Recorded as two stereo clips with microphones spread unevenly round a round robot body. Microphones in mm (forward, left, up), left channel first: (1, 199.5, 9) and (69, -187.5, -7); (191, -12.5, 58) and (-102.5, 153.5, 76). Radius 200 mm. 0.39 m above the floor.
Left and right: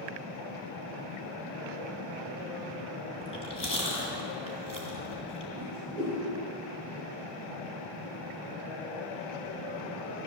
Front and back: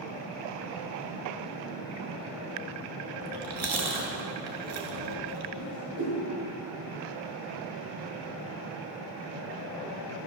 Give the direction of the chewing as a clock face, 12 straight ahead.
6 o'clock.